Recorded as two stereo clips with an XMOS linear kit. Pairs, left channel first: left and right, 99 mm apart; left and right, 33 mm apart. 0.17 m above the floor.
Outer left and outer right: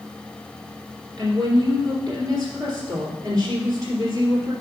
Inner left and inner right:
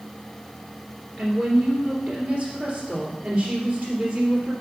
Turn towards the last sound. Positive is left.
turn(degrees=-35)  # may be behind; listen again after turning